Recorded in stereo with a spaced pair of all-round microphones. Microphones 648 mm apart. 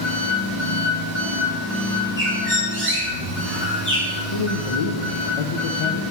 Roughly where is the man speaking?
Left.